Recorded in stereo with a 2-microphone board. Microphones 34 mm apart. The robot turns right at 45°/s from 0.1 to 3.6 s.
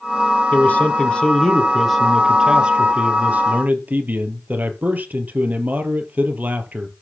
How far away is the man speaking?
About 3 m.